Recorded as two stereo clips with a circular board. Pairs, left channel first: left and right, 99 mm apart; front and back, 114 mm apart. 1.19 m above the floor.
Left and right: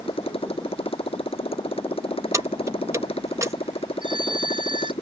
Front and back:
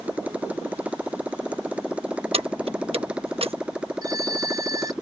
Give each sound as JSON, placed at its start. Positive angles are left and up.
{"t": 0.0, "sound": "a motorcycle", "azimuth_deg": 100}
{"t": 2.3, "sound": "keys jangling", "azimuth_deg": -150}
{"t": 4.0, "sound": "a phone ringing", "azimuth_deg": -120}